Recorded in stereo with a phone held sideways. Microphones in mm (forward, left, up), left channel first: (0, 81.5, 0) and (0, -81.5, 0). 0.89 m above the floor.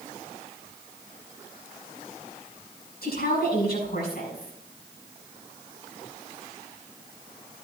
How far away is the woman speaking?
About 6 m.